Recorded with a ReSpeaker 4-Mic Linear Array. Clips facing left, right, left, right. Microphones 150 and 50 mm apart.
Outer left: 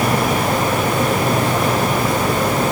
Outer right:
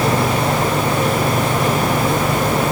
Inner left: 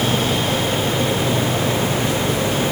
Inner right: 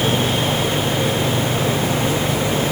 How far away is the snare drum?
I don't hear a snare drum.